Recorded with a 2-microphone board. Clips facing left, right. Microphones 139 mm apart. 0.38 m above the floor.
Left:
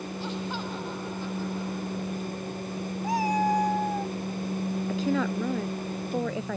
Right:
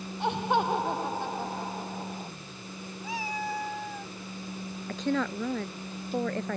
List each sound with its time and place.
0.2 s laughter: 65° right (ahead or behind); by 2.3 s 55° right (ahead or behind)
3.0 s a cat meowing: 45° left (ahead or behind)
4.9 s a woman speaking: 5° left (ahead or behind)